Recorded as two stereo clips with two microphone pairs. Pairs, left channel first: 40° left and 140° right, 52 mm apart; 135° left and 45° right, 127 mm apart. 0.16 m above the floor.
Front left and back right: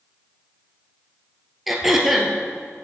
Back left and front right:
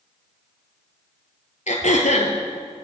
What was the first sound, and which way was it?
Throat clearing, 135° left.